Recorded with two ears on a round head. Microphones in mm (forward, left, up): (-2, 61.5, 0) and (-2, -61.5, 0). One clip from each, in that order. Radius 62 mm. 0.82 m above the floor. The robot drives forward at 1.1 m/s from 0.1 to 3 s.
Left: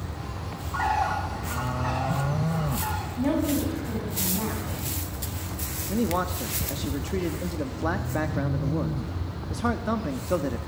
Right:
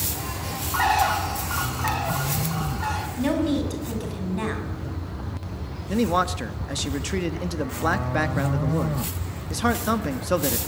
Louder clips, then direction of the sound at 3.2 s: Right 1 dB; 55° right (ahead or behind).